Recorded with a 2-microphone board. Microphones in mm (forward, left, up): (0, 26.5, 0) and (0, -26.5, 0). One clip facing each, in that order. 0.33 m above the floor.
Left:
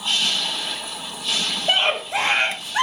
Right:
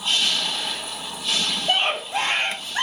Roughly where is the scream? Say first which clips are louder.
Left 3 dB; left.